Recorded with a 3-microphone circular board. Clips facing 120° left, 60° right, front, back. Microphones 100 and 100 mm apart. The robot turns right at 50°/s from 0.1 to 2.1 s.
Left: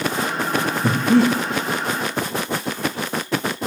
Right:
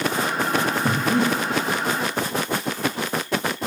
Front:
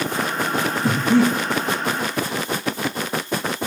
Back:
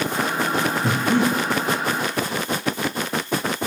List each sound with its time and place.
0.8 s breathing: 90° left, 4.5 m; by 1.3 s 115° left, 4.5 m